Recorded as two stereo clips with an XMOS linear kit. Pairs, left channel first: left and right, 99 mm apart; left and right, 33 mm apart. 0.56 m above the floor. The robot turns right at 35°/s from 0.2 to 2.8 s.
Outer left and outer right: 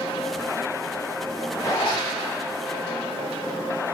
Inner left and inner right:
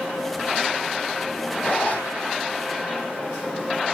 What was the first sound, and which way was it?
A zipper, 30° left (ahead or behind).